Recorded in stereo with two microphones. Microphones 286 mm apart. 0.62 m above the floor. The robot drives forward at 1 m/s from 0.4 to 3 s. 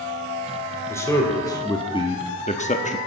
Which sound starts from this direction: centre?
A man speaking, at 0.9 s.